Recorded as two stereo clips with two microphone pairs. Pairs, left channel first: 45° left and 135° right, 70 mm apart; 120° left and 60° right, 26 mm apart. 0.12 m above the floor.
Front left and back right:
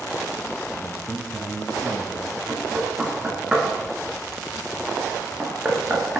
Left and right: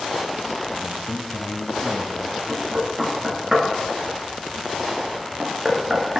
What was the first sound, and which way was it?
A man speaking, 150° left.